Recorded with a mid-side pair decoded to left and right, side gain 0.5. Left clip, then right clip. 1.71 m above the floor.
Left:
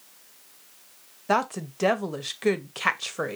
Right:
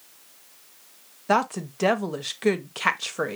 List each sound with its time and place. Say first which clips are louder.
1.3 s a woman speaking: right 2 dB; 5° right, 0.9 m